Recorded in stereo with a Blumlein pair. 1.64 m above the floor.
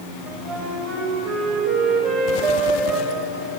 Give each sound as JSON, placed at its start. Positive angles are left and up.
{"t": 0.3, "sound": "a flute", "azimuth_deg": -25, "distance_m": 8.5}